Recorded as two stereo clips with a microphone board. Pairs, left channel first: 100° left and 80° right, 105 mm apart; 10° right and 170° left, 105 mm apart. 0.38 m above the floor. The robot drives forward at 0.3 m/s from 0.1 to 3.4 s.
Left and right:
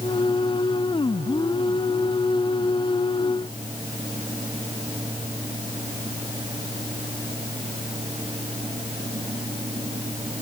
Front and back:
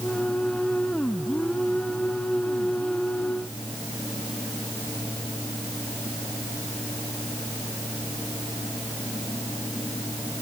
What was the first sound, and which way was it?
Only background noise.